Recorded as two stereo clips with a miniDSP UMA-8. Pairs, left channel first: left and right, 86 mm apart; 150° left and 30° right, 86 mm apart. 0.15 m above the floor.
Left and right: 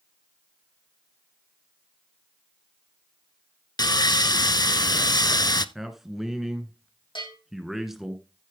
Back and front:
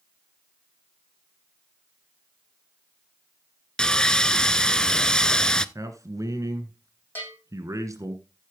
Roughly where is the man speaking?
Ahead.